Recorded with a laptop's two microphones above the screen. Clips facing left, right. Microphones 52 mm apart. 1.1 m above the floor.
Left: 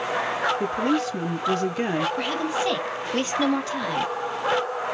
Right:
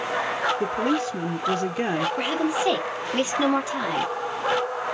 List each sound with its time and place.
0.6 s a woman speaking: 5° right (ahead or behind), 0.5 m
2.2 s a woman speaking: 15° right (ahead or behind), 2.5 m